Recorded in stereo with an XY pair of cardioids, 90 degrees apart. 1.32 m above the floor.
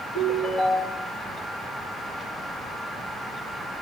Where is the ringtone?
50° left, 5.5 m.